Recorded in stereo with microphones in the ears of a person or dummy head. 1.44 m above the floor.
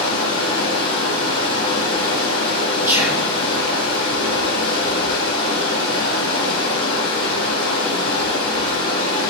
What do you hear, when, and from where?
0.0 s running water: 65° left (ahead or behind), 2.5 m
2.9 s whispering: 15° right (ahead or behind), 1.1 m